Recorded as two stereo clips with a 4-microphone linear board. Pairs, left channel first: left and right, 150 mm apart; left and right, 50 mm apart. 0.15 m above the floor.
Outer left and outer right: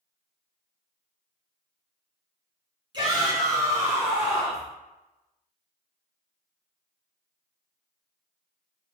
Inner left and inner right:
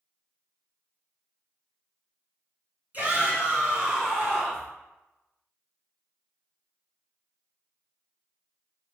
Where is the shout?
30° right (ahead or behind), 1.8 m; by 4.7 s centre (ahead or behind), 1.7 m.